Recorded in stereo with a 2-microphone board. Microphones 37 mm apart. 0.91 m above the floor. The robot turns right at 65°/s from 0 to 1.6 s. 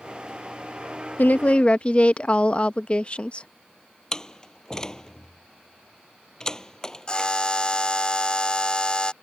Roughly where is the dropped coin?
No dropped coin in this recording.